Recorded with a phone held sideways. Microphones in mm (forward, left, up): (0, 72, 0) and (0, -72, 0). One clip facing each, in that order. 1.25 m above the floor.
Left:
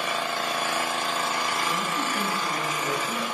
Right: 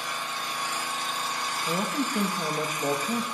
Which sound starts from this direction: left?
An engine running, at 0.0 s.